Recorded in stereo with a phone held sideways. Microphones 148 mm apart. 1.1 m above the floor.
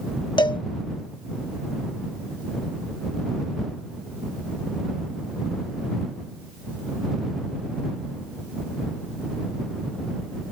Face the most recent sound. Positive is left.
turn(degrees=30)  # may be behind; listen again after turning